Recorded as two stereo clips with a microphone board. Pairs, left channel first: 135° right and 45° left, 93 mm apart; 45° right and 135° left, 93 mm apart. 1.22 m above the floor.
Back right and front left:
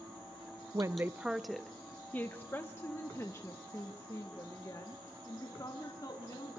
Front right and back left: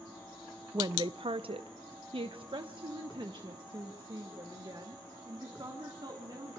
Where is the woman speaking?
90° left, 0.5 m; by 6.6 s 175° left, 3.5 m.